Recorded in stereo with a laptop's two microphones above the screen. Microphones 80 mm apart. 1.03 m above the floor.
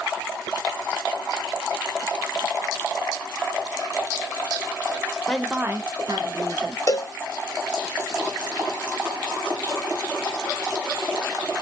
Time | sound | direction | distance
5.3 | a woman speaking | 15° left (ahead or behind) | 0.9 m
6.9 | a cowbell | 40° left (ahead or behind) | 0.7 m